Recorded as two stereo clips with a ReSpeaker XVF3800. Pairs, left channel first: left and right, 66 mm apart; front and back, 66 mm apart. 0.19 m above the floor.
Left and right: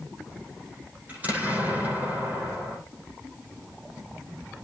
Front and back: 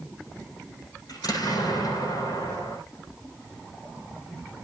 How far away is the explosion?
About 9.5 m.